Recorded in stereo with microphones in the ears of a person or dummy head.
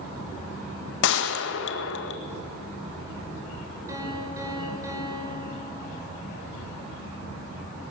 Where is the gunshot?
70° left (ahead or behind), 1.7 m.